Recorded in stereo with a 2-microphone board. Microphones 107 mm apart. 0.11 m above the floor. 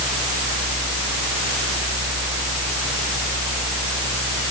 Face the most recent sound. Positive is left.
No sound to turn to.